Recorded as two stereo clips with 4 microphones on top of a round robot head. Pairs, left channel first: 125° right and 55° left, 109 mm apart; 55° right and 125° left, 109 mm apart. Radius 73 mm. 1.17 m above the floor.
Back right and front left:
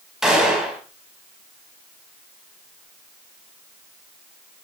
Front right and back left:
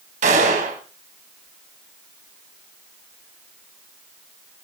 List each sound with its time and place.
0.2 s a gunshot: 140° left, 4.5 m